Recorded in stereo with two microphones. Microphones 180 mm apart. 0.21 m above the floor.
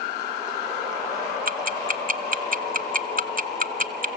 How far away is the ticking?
About 0.7 m.